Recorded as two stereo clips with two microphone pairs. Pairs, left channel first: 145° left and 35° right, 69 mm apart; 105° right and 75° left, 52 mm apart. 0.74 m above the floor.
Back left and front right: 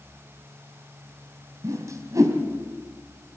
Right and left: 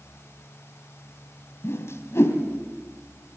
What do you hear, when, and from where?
1.6 s a whoosh: 75° right, 3 m